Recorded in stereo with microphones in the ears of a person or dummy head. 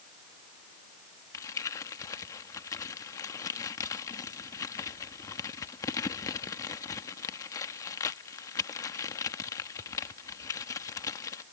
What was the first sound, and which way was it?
Crumpling, 20° left (ahead or behind).